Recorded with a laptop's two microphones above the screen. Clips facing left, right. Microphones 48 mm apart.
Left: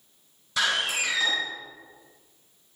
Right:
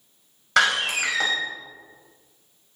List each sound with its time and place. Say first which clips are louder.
0.6 s a door slam: right 5 dB; 70° right (ahead or behind), 3.5 m